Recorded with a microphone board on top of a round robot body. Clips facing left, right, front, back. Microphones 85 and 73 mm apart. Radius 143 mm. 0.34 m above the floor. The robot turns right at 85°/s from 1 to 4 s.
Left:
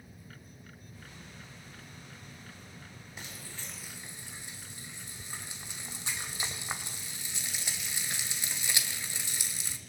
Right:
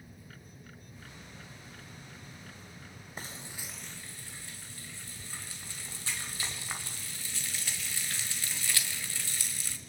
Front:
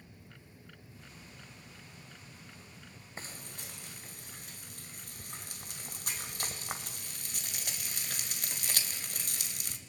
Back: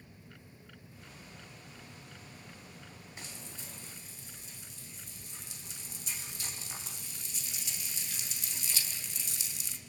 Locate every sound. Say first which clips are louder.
3.2 s frying: right 3 dB, front 4 dB; 50° right, 1.8 m; by 9.8 s 20° left, 1.8 m